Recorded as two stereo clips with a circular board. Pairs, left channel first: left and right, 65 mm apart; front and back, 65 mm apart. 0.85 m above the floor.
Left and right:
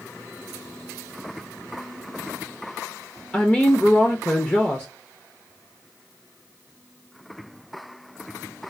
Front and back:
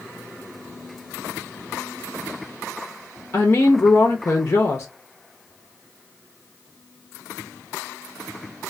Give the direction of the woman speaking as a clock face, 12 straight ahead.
11 o'clock.